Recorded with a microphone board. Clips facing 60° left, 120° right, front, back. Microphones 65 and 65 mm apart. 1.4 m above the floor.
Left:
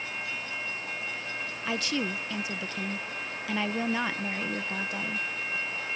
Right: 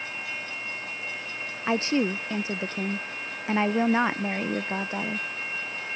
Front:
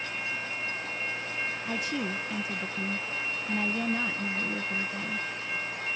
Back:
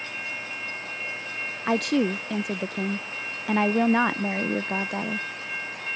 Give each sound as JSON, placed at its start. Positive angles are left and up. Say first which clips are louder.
{"t": 1.7, "sound": "a woman speaking", "louder": "right 7 dB, back 13 dB", "azimuth_deg": 180}